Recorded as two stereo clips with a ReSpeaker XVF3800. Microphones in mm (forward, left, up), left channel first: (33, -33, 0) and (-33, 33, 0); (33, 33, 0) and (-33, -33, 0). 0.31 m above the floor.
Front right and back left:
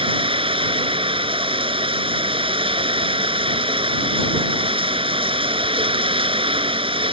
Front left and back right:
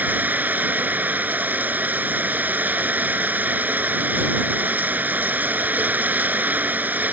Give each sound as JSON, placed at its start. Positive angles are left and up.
{"t": 0.0, "sound": "running water", "azimuth_deg": 155}